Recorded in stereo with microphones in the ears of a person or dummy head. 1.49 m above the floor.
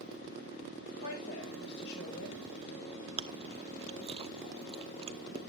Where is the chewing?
25° right (ahead or behind), 0.6 m.